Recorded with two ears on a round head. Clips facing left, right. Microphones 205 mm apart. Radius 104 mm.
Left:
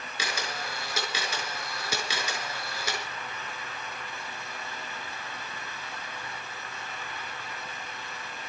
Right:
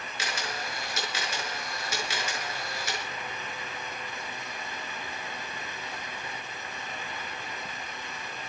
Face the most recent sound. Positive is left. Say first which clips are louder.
# left 1 dB
turn(degrees=65)  # may be behind; listen again after turning